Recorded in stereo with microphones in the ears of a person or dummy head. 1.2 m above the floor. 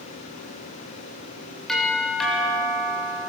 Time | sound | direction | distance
1.7 | a doorbell | centre (ahead or behind) | 7.5 m